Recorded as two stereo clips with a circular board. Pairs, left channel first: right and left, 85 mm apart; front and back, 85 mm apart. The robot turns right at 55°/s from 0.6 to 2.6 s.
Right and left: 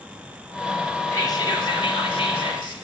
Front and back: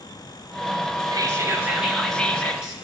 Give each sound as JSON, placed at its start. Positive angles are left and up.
{"t": 1.1, "sound": "whispering", "azimuth_deg": -140, "distance_m": 1.9}